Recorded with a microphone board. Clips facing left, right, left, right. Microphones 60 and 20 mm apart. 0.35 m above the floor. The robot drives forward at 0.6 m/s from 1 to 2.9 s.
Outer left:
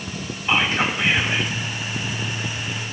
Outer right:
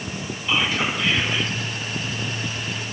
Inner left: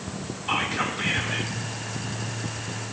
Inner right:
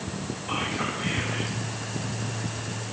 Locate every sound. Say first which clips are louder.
0.5 s whispering: outer left 2 dB, inner left 4 dB; 45° left (ahead or behind), 3 m; by 1.5 s 50° left (ahead or behind), 3 m